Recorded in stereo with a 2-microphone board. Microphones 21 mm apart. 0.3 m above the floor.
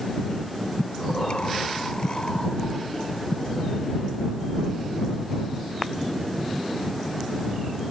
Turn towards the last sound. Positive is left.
turn(degrees=50)  # may be behind; listen again after turning